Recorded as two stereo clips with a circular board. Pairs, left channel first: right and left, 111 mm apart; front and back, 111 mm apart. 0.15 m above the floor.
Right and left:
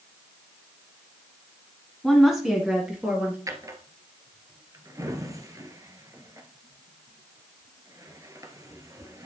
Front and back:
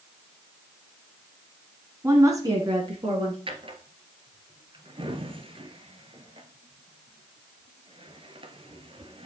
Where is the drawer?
150° left, 1.3 m.